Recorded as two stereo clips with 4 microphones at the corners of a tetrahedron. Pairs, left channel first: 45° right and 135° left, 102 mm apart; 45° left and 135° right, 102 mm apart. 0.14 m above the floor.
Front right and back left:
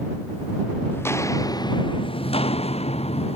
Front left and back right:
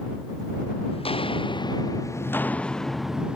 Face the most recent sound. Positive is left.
turn(degrees=-55)